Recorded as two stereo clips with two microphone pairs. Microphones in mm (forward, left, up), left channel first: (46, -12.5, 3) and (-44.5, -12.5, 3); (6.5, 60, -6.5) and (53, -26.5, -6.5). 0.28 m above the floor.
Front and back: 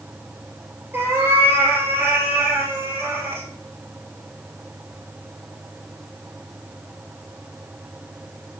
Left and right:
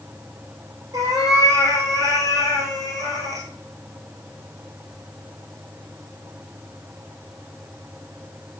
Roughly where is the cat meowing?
Behind right.